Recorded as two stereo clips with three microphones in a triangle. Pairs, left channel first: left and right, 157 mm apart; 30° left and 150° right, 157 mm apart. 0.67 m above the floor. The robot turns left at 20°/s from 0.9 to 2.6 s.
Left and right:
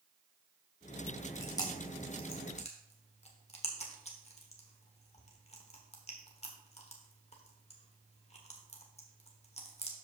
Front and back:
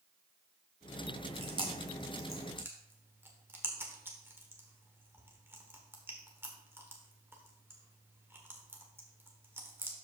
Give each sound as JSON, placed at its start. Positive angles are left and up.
{"t": 1.4, "sound": "chewing", "azimuth_deg": 160, "distance_m": 1.5}